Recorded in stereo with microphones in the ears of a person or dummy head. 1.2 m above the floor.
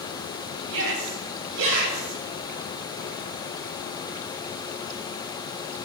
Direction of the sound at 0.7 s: 70° right (ahead or behind).